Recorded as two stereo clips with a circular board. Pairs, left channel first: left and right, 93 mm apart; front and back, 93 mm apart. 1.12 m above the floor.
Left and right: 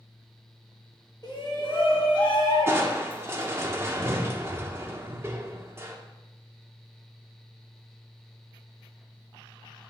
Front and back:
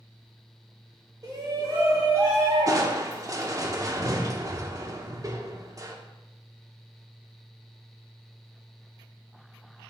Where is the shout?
130° left, 2 m; by 3.7 s 115° left, 3.5 m.